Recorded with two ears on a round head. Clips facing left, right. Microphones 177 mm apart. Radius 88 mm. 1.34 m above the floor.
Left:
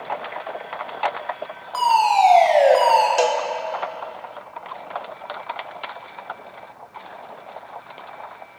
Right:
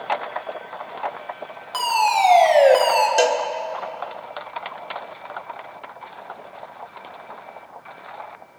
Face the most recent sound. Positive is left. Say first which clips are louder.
# right 1 dB
turn(degrees=-25)  # may be behind; listen again after turning